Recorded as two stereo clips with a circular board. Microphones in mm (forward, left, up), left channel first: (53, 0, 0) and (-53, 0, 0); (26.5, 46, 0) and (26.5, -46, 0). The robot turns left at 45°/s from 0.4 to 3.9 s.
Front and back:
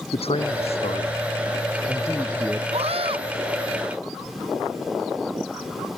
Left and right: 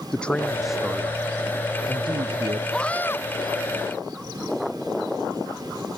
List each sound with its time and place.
0.1 s a man speaking: 10° left; by 2.6 s 90° right
2.7 s a scream: 175° left; by 3.2 s 150° left